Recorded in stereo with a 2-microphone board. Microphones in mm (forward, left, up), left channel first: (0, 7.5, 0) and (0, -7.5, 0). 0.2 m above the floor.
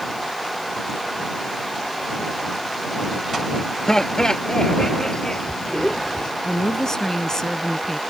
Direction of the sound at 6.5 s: 40° left (ahead or behind).